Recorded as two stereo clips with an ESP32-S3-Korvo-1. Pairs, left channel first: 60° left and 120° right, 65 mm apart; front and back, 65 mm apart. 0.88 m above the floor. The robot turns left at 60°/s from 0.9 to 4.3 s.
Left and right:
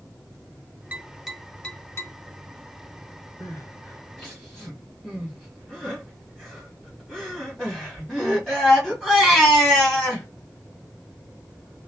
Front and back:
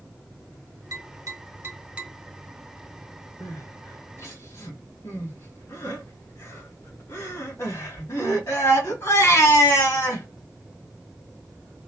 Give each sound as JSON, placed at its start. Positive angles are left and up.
{"t": 0.9, "sound": "tapping", "azimuth_deg": 180, "distance_m": 1.9}
{"t": 3.4, "sound": "crying", "azimuth_deg": 30, "distance_m": 1.6}